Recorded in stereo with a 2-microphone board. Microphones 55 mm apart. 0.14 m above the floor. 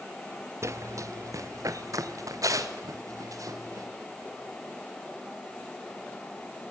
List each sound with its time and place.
0.6 s running footsteps: 55° right (ahead or behind), 0.8 m; by 3.9 s 75° right (ahead or behind), 5.5 m